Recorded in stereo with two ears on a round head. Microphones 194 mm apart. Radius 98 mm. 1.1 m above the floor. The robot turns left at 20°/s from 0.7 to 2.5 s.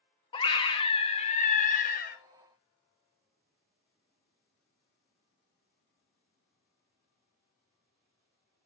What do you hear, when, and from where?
0.3 s a scream: 25° left (ahead or behind), 1.0 m; by 2.2 s 45° left (ahead or behind), 1.0 m